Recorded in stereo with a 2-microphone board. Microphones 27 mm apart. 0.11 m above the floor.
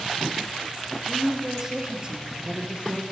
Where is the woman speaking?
10° right (ahead or behind), 3 m; by 3.0 s 50° right (ahead or behind), 2 m.